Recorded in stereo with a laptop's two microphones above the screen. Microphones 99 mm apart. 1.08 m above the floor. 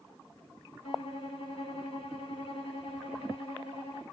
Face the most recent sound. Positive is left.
turn(degrees=80)